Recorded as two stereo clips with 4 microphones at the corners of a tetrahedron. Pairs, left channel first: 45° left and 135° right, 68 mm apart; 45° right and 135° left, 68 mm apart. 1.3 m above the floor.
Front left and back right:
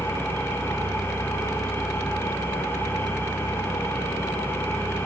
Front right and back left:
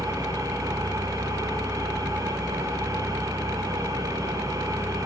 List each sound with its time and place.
0.0 s an engine running: 105° left, 7.5 m